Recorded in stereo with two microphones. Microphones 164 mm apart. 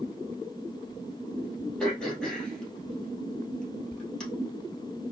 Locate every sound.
1.8 s throat clearing: 5° left (ahead or behind), 2 m